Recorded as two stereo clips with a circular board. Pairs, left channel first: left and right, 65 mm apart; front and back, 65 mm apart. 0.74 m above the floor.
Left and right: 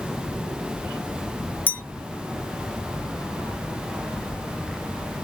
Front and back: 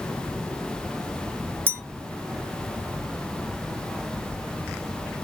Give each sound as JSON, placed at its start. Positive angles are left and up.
{"t": 1.7, "sound": "a clink", "azimuth_deg": 140, "distance_m": 0.6}